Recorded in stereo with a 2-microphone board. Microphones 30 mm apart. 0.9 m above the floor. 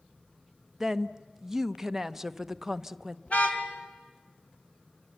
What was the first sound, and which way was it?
A woman speaking, 10° right (ahead or behind).